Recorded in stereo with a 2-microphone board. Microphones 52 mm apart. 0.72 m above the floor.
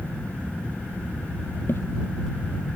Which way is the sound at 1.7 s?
50° left (ahead or behind).